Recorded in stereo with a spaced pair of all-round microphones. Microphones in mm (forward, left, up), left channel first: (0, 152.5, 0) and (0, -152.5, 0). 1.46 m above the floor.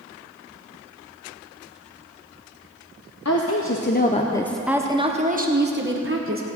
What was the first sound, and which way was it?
A woman speaking, 55° left (ahead or behind).